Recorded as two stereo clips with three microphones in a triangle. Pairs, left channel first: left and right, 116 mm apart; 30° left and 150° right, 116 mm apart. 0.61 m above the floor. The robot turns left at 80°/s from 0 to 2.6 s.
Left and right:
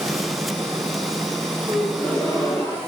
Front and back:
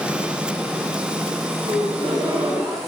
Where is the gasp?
155° right, 2.5 m; by 2.8 s 130° left, 2.5 m.